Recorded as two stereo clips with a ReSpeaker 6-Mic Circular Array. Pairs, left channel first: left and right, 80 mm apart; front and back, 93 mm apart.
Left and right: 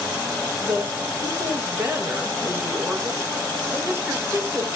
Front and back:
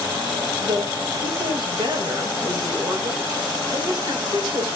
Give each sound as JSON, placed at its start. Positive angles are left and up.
{"t": 0.6, "sound": "a woman speaking", "azimuth_deg": -145, "distance_m": 2.5}